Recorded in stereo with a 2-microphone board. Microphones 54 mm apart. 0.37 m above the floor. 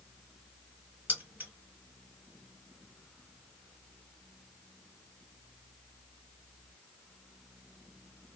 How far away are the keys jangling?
About 1.7 m.